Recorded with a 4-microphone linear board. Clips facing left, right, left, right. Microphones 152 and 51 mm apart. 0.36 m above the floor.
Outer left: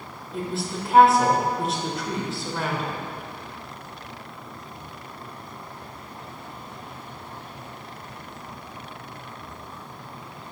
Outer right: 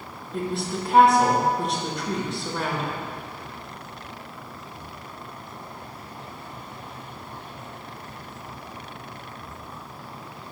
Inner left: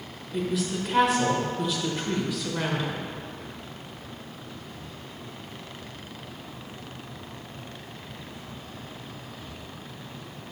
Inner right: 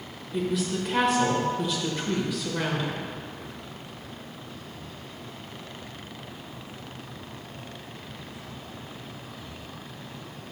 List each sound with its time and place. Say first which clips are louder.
0.3 s a woman speaking: outer right 2 dB, inner right 1 dB; centre (ahead or behind), 1.0 m